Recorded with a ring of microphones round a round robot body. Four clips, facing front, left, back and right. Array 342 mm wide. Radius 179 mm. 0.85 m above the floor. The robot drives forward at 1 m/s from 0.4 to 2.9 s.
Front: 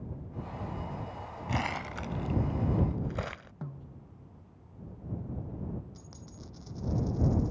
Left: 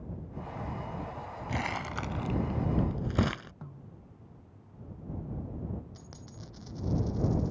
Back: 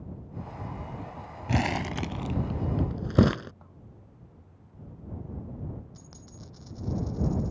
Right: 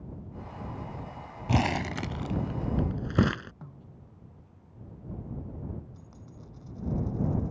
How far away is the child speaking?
I don't hear a child speaking.